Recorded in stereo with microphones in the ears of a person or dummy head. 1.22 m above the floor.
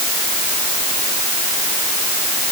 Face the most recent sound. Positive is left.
No sound to turn to.